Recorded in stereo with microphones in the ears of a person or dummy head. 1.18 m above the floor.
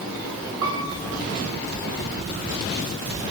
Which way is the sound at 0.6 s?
80° right.